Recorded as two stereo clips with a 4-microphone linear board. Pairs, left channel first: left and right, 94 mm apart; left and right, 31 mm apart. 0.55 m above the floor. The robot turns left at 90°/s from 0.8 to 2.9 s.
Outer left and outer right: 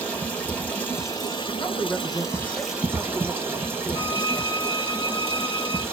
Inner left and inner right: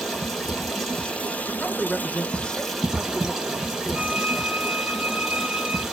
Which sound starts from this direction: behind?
Running water, at 0.0 s.